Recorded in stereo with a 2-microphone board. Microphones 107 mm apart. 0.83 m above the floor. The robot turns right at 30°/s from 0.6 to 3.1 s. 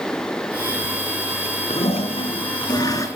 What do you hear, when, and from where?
1.7 s a toilet flushing: 110° left, 4.5 m; by 3.1 s 150° left, 4.5 m